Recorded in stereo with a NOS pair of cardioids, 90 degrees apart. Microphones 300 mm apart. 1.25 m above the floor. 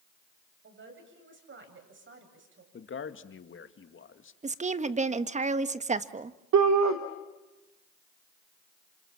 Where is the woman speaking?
25° right, 1.4 m.